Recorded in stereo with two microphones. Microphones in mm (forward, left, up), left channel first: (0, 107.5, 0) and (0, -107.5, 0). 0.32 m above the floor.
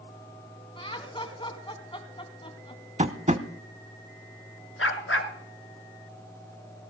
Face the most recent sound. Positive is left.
turn(degrees=80)